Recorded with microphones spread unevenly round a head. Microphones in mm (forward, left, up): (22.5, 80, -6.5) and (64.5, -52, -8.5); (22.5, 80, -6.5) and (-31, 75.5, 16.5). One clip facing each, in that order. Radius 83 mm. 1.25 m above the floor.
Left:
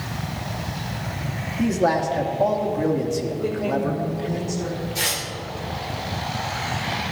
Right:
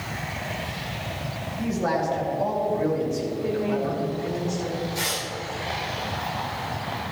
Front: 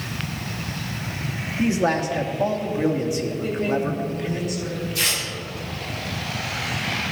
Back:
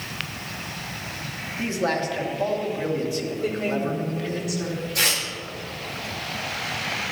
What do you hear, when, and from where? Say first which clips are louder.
1.6 s a man speaking: left 5 dB, front 4 dB; 80° left, 2 m
3.4 s a woman speaking: left 1 dB, front 1 dB; 170° left, 4 m
5.0 s tearing paper: left 1 dB, back 3 dB; straight behind, 3.5 m